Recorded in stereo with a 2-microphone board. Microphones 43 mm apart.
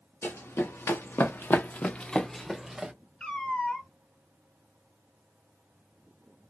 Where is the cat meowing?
20° left (ahead or behind), 1.1 m.